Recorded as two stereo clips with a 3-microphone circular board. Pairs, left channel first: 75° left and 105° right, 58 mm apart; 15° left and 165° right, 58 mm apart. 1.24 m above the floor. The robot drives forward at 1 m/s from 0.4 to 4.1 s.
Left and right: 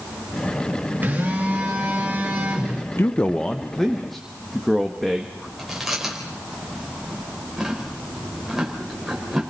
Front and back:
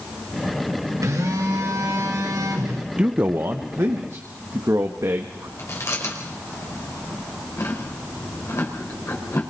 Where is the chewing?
20° right, 4.5 m.